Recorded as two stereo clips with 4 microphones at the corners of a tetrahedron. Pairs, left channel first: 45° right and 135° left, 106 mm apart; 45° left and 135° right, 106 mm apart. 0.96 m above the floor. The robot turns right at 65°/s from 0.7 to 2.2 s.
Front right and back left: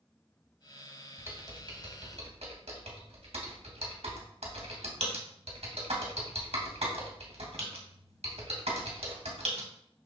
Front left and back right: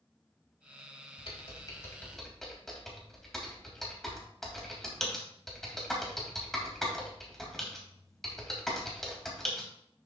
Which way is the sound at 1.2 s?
65° left.